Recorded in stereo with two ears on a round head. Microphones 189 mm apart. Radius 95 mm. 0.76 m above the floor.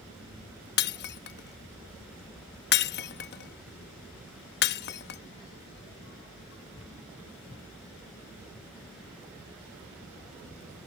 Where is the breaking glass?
50° left (ahead or behind).